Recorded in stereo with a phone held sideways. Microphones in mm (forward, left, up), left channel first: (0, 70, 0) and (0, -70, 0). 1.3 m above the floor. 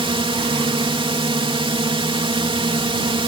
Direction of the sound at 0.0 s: 40° right (ahead or behind).